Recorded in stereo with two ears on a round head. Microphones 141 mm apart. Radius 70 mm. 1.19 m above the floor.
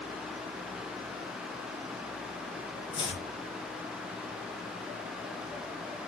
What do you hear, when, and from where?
2.9 s chopping: 30° left (ahead or behind), 0.9 m